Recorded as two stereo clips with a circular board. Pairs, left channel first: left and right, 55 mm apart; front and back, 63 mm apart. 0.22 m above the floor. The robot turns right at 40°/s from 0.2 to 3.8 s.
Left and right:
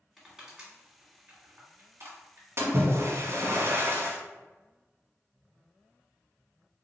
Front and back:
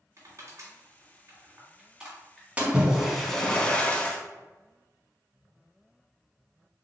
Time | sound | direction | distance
0.2 | crushing | straight behind | 1.8 m
2.6 | a splash | 115° right | 1.0 m